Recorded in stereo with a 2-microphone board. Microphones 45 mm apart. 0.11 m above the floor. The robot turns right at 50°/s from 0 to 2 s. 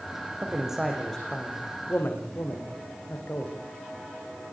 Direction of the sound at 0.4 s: 25° right (ahead or behind).